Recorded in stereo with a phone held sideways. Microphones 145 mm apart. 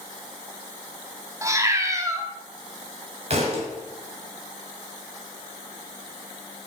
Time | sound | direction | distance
1.4 | a cat meowing | 20° right (ahead or behind) | 0.7 m
3.3 | a thud | 45° right (ahead or behind) | 2.5 m